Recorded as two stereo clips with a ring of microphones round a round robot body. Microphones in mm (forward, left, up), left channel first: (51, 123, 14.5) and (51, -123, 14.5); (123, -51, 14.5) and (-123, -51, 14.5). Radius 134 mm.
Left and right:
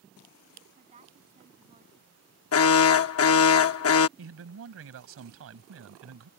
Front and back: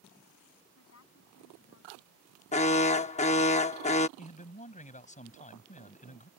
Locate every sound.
0.8 s a woman speaking: 30° right
2.5 s an alarm: 65° left
4.2 s a man speaking: 60° right